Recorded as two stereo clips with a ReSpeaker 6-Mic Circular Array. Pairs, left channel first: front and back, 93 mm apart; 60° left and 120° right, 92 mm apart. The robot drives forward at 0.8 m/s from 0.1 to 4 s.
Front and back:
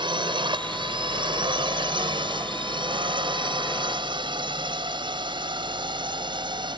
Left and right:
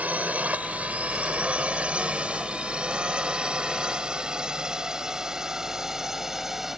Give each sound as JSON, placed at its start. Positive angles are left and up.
{"t": 0.0, "sound": "a drone", "azimuth_deg": 170}